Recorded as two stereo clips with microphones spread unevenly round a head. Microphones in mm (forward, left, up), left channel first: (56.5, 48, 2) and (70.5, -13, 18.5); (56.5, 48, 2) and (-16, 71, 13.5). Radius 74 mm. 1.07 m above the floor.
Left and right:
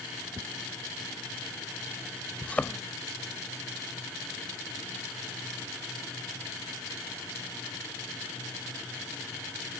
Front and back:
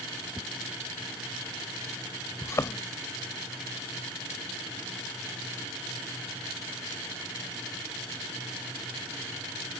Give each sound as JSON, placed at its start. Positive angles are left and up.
{"t": 0.3, "sound": "a whoosh", "azimuth_deg": -130}
{"t": 2.4, "sound": "a thud", "azimuth_deg": 25}